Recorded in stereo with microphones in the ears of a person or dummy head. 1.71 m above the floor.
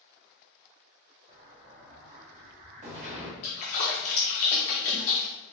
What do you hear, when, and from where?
1.3 s an explosion: 35° right (ahead or behind), 0.9 m
3.4 s a splash: 25° left (ahead or behind), 0.9 m